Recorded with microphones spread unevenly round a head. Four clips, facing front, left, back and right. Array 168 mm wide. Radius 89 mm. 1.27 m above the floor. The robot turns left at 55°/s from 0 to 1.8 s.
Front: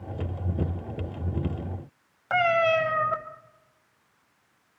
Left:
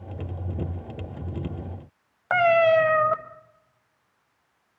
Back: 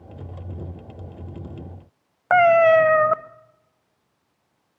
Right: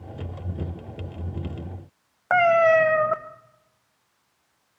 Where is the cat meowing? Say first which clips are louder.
Right 1 dB, back 9 dB; 165° right, 0.6 m.